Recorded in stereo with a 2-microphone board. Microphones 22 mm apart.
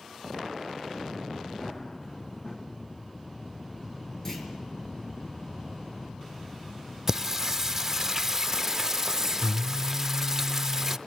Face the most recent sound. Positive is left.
turn(degrees=-20)  # may be behind; listen again after turning